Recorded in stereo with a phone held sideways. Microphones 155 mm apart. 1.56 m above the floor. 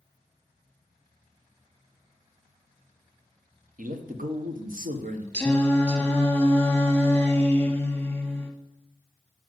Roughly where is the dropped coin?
I don't hear a dropped coin.